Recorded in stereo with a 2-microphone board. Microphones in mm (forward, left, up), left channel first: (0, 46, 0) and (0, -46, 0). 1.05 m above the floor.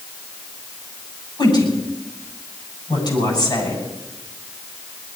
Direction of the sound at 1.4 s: 50° left (ahead or behind).